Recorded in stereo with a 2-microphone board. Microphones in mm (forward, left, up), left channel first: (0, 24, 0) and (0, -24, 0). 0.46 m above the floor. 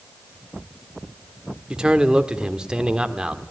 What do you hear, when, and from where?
1.7 s a man speaking: 15° right (ahead or behind), 1.5 m